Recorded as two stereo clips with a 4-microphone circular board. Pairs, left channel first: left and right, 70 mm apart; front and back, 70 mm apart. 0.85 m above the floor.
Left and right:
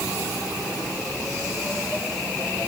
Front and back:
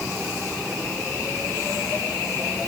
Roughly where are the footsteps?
I don't hear footsteps.